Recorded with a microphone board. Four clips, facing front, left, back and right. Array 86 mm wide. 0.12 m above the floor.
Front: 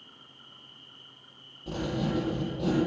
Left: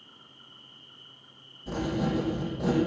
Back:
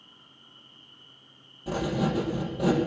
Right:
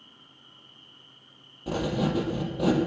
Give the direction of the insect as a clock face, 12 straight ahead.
11 o'clock.